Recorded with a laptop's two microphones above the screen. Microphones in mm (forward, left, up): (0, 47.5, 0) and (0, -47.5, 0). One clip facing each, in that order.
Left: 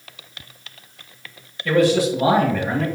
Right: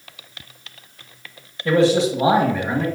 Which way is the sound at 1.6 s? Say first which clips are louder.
Right 1 dB; 20° right (ahead or behind).